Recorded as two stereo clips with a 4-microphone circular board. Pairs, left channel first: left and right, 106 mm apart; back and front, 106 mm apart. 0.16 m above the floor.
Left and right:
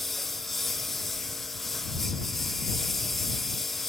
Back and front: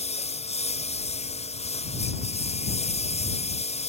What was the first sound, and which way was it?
A lawn mower, straight behind.